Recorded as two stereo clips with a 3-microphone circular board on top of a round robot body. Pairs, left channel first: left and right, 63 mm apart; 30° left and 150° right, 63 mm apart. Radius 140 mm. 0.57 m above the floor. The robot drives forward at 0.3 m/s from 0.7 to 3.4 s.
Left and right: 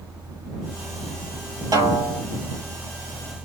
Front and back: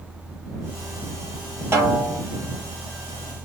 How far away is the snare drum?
About 4 m.